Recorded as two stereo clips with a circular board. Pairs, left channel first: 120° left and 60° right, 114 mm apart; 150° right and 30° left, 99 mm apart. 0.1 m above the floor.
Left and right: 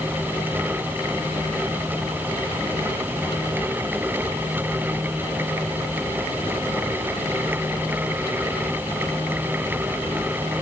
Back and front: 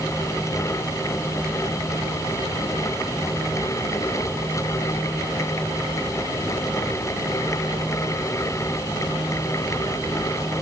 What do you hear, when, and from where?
Only background noise.